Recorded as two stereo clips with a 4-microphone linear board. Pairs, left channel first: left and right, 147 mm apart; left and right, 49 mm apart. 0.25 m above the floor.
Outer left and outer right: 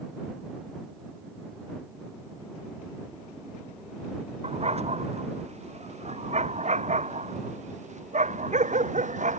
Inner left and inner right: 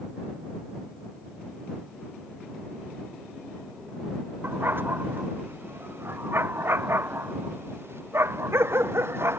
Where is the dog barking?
45° right (ahead or behind); by 9.4 s 55° right (ahead or behind).